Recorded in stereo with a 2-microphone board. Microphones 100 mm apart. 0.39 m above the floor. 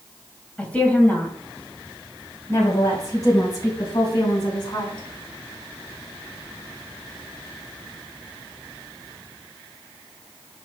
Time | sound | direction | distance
0.6 | a woman speaking | 10° left (ahead or behind) | 2.5 m